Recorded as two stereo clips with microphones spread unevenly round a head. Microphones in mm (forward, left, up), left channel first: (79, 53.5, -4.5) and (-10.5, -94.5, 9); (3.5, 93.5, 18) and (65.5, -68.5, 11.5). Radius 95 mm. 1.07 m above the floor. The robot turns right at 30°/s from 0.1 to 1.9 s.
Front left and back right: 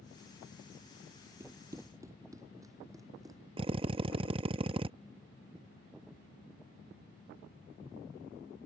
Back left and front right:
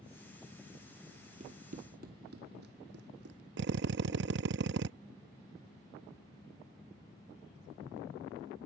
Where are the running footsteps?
85° right; by 3.4 s 55° right.